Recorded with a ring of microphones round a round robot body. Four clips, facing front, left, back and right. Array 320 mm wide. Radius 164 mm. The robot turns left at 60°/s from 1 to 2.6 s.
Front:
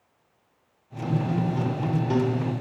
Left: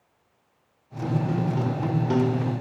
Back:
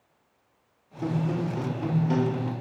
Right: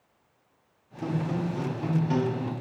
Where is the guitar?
165° left, 1.5 m; by 2.5 s 75° left, 1.5 m.